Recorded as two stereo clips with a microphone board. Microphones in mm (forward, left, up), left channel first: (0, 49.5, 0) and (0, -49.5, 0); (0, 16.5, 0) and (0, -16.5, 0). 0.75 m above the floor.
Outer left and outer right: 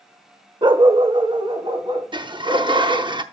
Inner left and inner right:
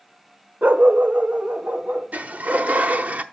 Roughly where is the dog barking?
Right.